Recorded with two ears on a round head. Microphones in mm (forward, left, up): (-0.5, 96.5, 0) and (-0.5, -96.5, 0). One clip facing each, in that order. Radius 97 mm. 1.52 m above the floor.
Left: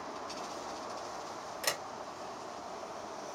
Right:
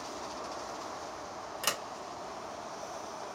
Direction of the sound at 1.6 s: 10° right (ahead or behind).